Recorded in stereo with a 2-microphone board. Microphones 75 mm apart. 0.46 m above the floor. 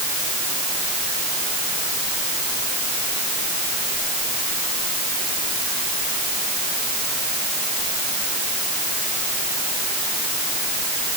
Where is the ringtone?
No ringtone in this recording.